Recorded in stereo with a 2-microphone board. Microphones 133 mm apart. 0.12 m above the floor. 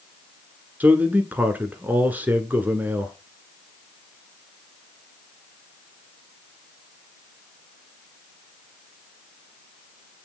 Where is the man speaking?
15° right (ahead or behind), 1.3 m.